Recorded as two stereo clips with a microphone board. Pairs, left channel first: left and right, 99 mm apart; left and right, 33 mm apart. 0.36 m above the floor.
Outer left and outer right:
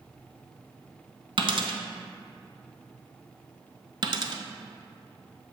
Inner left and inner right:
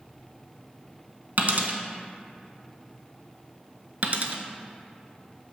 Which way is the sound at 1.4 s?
60° right (ahead or behind).